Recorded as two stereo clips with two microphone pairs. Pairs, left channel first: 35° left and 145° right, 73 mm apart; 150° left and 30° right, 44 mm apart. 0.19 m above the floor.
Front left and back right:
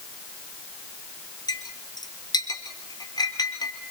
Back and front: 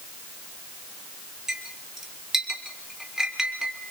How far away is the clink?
About 2.0 m.